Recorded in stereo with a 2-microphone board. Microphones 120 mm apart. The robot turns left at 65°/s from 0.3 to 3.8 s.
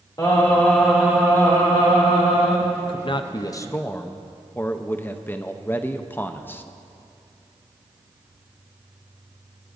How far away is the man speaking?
About 0.5 m.